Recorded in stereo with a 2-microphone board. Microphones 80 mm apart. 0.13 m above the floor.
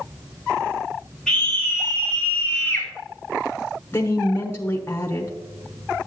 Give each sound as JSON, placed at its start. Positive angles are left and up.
{"t": 1.3, "sound": "a scream", "side_deg": 5, "distance_m": 2.5}
{"t": 3.9, "sound": "a woman speaking", "side_deg": 30, "distance_m": 1.3}